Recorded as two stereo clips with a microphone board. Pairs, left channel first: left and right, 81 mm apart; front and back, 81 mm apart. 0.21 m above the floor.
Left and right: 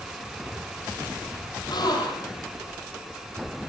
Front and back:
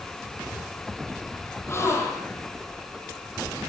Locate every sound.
1.7 s a gasp: 60° left, 8.5 m